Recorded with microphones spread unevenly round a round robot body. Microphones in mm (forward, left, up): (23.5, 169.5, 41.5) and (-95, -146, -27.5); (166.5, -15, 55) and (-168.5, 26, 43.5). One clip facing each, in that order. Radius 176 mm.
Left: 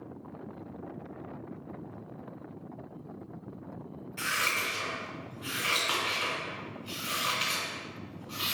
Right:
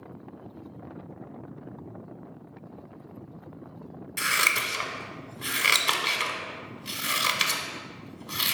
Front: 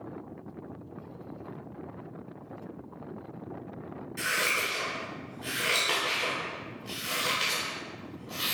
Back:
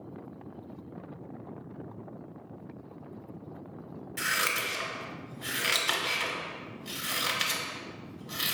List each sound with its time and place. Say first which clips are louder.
4.2 s scissors: right 3 dB, front 3 dB; 115° right, 0.7 m